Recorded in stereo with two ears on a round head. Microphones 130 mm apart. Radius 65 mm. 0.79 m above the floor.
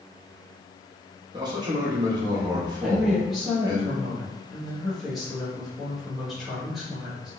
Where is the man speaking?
30° right (ahead or behind), 0.8 m.